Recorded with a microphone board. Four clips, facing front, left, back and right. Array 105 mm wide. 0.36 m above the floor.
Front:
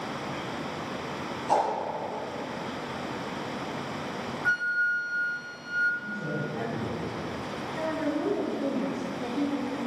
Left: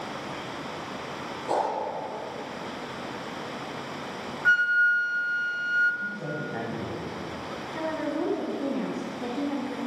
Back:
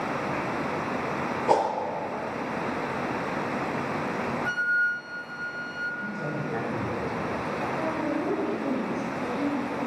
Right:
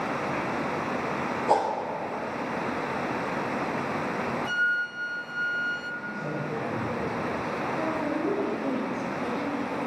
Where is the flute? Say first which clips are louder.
Left 11 dB, front 2 dB; 75° left, 0.8 m.